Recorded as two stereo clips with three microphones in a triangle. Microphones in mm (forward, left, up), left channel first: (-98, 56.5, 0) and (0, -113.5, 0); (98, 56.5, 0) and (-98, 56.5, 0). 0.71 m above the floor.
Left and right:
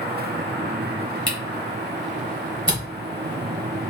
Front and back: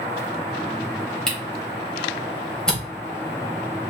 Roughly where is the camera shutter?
Right.